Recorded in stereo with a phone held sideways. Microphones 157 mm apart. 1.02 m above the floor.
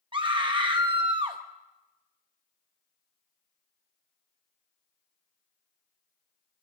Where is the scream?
35° right (ahead or behind), 0.8 m.